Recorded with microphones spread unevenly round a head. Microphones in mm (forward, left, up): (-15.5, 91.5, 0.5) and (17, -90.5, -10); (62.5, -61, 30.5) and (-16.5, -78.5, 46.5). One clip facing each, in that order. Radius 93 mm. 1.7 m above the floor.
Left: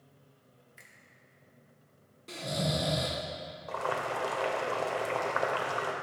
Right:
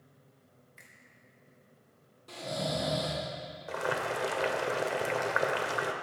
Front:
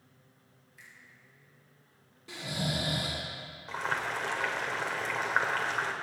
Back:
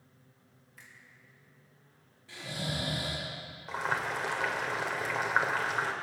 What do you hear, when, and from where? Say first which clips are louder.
0.8 s a finger snap: even, even; straight behind, 3 m
2.3 s snoring: left 1 dB, front 3 dB; 45° left, 3 m
3.7 s boiling: right 1 dB, back 1 dB; 120° right, 1.5 m